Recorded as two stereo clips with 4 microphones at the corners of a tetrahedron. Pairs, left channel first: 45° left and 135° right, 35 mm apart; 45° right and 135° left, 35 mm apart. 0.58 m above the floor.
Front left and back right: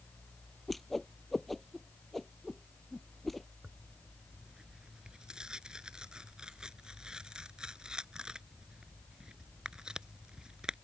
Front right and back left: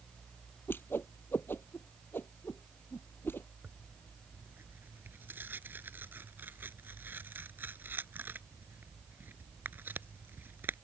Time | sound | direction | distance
0.7 | a whoosh | 40° right | ?
3.6 | tearing paper | 160° left | ?